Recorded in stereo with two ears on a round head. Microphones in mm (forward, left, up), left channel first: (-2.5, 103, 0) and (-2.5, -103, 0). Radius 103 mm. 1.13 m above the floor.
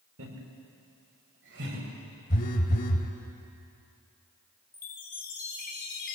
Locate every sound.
0.2 s laughter: 60° right (ahead or behind), 4.5 m; by 1.9 s 55° right (ahead or behind), 7 m
2.3 s a phone buzzing: 40° left (ahead or behind), 2.5 m
4.7 s a chime: 40° left (ahead or behind), 3.5 m